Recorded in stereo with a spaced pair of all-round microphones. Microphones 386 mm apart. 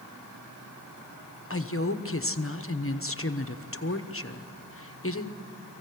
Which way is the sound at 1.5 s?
35° left (ahead or behind).